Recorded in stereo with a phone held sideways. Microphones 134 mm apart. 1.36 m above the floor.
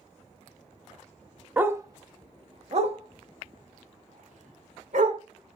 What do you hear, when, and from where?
1.6 s a dog barking: 10° right (ahead or behind), 0.7 m; by 5.2 s 75° right (ahead or behind), 2.5 m